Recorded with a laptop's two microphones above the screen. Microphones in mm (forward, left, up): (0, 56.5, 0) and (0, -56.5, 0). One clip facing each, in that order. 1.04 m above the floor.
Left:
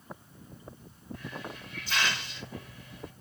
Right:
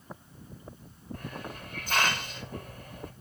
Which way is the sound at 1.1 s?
45° right (ahead or behind).